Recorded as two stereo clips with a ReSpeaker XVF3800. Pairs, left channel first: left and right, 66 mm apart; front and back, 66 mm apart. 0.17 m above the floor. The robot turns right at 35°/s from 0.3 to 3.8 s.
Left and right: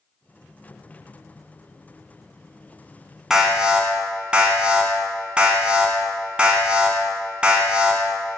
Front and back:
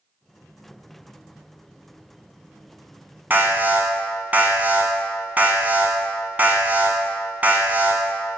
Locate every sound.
3.3 s an alarm: 165° right, 1.4 m; by 8.0 s 145° right, 1.4 m